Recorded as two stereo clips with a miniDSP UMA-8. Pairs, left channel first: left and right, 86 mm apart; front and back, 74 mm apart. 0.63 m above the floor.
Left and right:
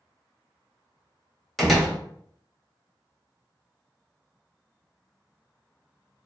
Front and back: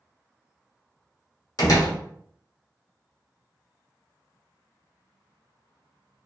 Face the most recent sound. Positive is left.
turn(degrees=0)